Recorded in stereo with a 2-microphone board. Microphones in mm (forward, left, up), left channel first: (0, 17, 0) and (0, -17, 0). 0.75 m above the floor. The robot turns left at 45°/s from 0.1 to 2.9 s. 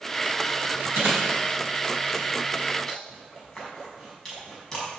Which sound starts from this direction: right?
Chewing, at 0.9 s.